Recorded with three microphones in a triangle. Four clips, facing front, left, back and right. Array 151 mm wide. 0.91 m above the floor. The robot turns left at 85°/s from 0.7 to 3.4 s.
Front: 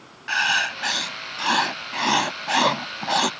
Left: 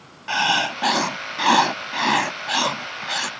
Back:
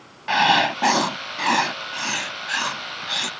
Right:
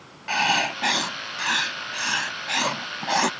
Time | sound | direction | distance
0.3 | writing | 175° left | ?